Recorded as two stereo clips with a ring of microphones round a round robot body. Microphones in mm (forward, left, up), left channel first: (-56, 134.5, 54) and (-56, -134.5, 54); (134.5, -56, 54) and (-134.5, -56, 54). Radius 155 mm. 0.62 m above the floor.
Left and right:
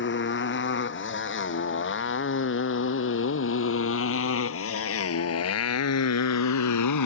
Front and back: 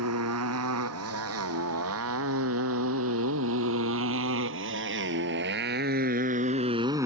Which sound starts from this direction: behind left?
A motorcycle, at 0.0 s.